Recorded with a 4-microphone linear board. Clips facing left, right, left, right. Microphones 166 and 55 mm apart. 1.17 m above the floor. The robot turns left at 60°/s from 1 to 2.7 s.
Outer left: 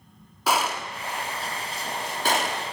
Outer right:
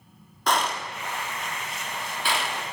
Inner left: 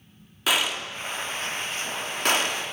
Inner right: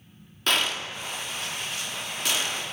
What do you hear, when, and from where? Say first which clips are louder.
0.5 s a gunshot: outer left 1 dB, inner left 1 dB; 5° left (ahead or behind), 0.8 m; by 2.6 s 40° left (ahead or behind), 0.8 m